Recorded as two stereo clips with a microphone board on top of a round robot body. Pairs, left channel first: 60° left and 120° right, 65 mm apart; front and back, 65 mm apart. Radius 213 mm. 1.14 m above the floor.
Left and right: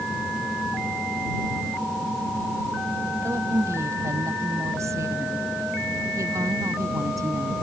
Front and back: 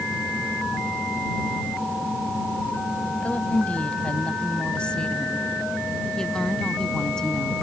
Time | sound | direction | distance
3.2 | a woman speaking | 70° right | ?